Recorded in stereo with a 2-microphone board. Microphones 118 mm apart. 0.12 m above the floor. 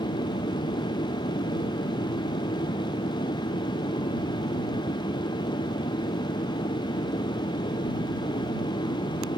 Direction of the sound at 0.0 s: 60° left (ahead or behind).